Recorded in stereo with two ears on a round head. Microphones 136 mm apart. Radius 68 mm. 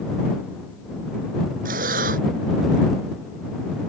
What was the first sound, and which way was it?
Breathing, 60° right (ahead or behind).